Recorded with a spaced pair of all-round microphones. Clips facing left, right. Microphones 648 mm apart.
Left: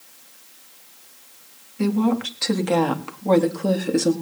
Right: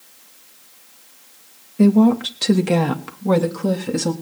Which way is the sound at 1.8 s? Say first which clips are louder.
Right 7 dB; 70° right (ahead or behind).